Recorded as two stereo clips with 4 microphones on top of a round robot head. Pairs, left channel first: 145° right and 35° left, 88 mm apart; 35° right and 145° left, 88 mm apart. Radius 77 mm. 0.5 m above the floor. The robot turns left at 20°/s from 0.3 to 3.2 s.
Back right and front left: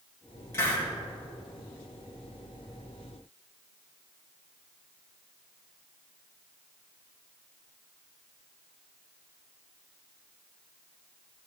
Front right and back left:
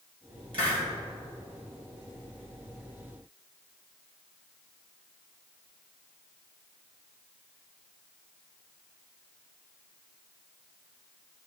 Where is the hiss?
155° left, 3 m; by 0.8 s 150° left, 3 m.